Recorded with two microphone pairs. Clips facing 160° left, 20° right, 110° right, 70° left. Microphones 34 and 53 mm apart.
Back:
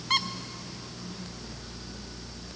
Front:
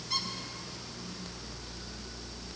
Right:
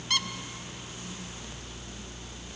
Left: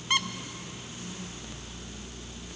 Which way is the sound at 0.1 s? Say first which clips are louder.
Back 8 dB, left 3 dB; 135° left.